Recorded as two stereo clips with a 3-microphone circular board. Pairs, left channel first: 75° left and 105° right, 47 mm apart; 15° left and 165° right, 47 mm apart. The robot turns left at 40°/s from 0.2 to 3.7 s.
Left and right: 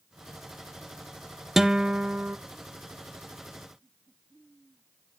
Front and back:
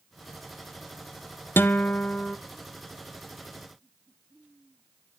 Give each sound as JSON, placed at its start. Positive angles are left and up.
{"t": 1.6, "sound": "a guitar", "azimuth_deg": -20, "distance_m": 0.5}